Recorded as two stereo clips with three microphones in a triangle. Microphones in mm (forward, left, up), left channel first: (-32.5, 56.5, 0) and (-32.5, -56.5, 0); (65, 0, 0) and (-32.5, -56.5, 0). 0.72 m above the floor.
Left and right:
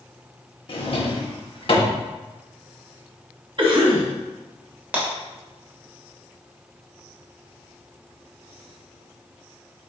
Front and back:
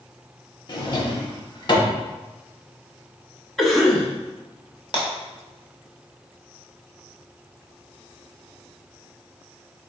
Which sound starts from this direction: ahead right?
A cough, at 3.6 s.